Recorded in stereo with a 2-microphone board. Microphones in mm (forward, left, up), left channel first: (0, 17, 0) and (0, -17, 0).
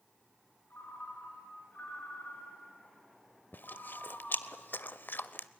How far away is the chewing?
About 0.7 m.